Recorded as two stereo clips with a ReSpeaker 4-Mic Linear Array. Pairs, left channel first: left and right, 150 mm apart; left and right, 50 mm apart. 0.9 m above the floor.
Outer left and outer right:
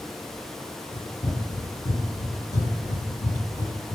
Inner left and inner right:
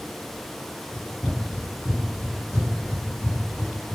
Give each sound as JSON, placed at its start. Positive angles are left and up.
{"t": 0.9, "sound": "running footsteps", "side_deg": 20, "distance_m": 1.2}